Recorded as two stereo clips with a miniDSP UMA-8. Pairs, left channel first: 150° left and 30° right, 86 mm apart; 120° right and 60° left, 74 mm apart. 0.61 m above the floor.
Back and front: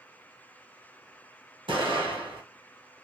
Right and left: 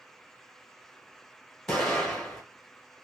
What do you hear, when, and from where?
1.7 s an explosion: 35° right, 1.8 m